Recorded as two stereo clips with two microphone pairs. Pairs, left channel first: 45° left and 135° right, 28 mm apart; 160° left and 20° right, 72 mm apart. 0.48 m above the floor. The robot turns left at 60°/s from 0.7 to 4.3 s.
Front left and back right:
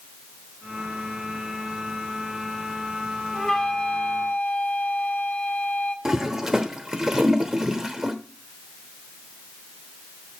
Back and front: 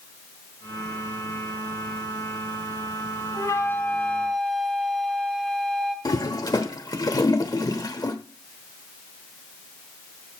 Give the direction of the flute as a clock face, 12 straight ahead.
8 o'clock.